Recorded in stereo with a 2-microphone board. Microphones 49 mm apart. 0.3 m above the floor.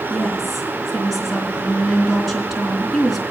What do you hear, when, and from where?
0.1 s a woman speaking: 5° left (ahead or behind), 3.5 m